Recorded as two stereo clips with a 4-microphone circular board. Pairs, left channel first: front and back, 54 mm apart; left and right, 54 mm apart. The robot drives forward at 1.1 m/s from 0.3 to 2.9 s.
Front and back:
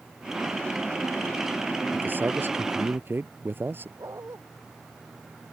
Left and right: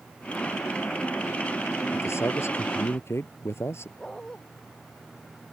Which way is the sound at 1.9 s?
125° left.